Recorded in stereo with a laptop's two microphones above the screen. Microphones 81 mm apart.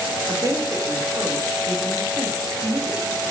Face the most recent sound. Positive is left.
turn(degrees=-40)  # may be behind; listen again after turning